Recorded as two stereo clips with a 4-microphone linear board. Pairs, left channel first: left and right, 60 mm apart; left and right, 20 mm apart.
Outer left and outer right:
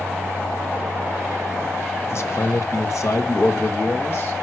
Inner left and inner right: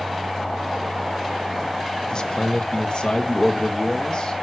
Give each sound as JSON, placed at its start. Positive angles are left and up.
{"t": 2.0, "sound": "a man speaking", "side_deg": 45, "distance_m": 1.3}